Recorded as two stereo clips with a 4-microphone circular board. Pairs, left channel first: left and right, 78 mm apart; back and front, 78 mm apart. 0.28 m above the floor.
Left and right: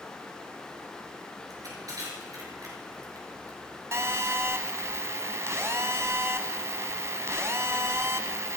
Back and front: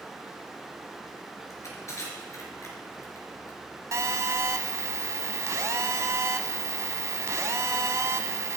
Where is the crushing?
130° right, 4.5 m.